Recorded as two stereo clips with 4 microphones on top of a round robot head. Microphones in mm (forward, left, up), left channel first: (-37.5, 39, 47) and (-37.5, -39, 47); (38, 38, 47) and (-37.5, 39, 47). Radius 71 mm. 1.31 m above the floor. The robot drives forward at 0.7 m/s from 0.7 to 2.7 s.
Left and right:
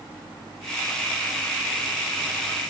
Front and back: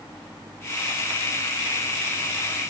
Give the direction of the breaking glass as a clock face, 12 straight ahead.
I don't hear breaking glass.